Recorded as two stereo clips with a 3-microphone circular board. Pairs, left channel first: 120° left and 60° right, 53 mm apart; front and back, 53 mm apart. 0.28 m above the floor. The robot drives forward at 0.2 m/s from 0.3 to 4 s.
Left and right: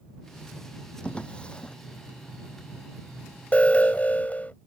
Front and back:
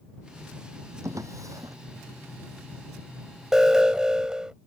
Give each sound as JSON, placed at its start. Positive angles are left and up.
{"t": 1.0, "sound": "a drawer", "azimuth_deg": -170}
{"t": 3.5, "sound": "an alarm", "azimuth_deg": 115}